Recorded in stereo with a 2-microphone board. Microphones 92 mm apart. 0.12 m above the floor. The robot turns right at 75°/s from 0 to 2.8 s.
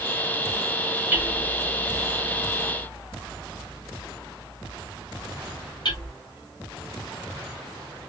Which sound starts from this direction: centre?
Hammering, at 1.1 s.